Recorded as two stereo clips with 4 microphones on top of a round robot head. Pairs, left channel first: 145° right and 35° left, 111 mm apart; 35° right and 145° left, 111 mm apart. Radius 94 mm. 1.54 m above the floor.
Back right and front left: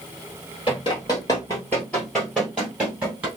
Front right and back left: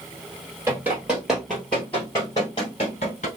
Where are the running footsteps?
160° right, 1.6 m; by 3.3 s 30° right, 1.7 m.